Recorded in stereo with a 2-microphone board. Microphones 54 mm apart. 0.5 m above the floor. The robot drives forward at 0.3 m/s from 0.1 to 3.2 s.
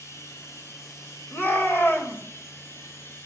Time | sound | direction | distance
0.0 | running water | 75° left (ahead or behind) | 2.5 m
1.3 | a shout | 45° left (ahead or behind) | 2 m